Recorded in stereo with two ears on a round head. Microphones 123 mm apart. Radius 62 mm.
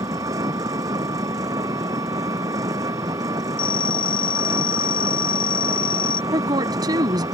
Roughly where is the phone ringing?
Left.